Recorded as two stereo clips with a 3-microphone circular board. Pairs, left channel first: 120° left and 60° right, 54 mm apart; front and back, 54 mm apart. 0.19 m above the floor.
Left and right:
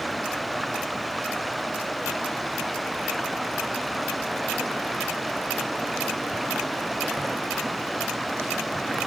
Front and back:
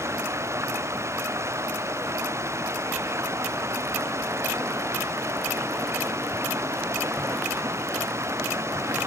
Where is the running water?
150° right.